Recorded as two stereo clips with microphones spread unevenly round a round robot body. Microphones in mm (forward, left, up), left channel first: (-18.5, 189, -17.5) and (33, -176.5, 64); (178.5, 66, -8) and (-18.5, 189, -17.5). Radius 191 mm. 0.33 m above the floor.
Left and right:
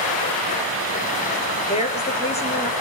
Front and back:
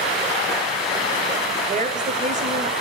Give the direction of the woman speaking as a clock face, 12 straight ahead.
8 o'clock.